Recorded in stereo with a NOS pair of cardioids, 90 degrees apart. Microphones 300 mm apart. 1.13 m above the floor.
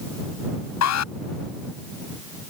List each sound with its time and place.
0.8 s an alarm: 60° left